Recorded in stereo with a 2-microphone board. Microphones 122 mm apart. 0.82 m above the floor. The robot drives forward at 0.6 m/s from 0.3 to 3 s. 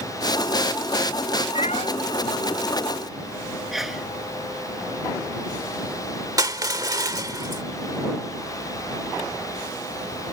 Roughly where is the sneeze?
Centre.